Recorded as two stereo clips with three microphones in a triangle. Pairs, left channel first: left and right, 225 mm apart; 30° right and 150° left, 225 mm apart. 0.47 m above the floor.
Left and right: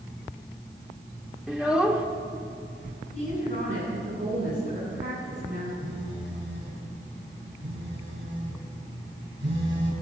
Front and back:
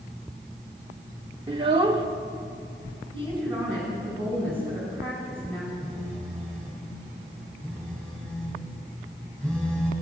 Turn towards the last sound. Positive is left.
turn(degrees=-115)